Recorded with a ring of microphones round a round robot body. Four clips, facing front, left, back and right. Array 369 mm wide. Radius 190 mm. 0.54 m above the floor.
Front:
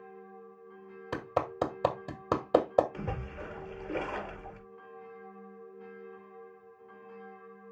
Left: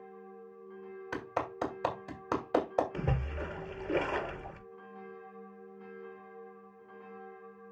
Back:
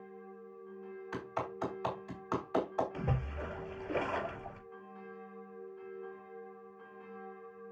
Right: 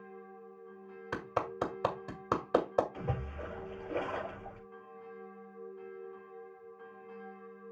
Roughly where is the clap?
Ahead.